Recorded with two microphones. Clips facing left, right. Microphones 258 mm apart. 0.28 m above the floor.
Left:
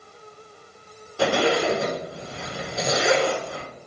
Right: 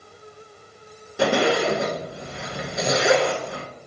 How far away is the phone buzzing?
I don't hear a phone buzzing.